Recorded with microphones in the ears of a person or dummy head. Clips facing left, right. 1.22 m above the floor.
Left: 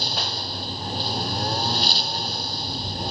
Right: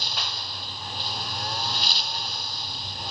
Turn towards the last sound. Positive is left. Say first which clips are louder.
# left 7 dB
turn(degrees=35)  # may be behind; listen again after turning